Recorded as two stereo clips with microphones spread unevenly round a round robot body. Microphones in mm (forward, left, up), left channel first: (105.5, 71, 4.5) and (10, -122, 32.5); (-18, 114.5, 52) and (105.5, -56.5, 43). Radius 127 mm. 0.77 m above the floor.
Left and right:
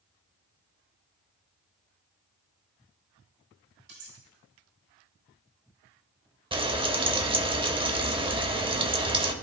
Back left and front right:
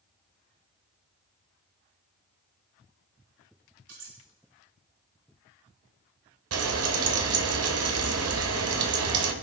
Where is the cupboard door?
No cupboard door in this recording.